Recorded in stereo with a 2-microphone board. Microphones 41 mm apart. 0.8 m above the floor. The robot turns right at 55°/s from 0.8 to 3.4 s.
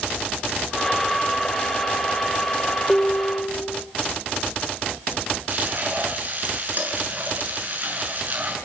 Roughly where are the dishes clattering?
Centre.